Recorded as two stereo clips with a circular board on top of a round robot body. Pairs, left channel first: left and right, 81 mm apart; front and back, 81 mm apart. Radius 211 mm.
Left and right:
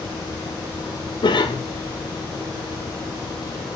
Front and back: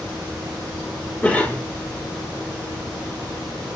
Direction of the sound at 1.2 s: 75° left.